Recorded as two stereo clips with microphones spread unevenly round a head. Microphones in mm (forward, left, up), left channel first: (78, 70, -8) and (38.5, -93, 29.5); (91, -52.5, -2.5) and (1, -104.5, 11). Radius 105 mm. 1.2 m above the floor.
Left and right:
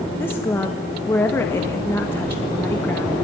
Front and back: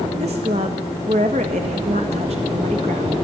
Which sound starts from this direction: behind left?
A woman speaking, at 0.2 s.